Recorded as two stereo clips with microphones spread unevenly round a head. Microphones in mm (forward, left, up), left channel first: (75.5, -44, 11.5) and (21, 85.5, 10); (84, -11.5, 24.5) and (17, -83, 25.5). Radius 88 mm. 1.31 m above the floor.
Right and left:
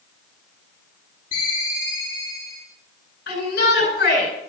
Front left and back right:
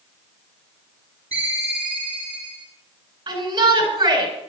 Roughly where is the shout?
Right.